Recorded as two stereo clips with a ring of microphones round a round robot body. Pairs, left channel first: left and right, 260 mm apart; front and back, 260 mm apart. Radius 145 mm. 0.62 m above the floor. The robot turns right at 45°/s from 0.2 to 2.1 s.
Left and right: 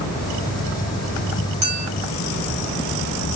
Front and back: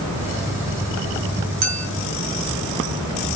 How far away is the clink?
About 1.4 m.